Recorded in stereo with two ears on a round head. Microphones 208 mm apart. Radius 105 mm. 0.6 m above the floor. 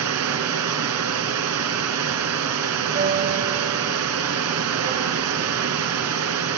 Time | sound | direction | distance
0.0 | running water | 75° right (ahead or behind) | 2.5 m
3.0 | a piano | 40° right (ahead or behind) | 2.5 m